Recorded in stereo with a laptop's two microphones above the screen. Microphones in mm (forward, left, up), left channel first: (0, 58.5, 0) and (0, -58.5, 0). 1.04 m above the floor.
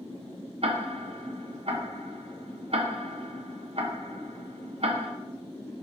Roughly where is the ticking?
Right.